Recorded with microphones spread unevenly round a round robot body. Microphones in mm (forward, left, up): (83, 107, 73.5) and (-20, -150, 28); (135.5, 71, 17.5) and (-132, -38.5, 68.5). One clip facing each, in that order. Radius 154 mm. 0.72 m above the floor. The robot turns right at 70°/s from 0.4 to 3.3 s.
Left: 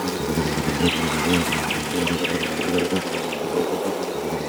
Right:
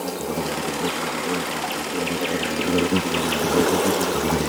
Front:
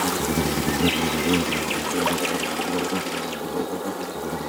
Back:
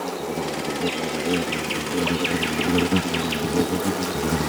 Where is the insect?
15° left; by 4.5 s 145° right.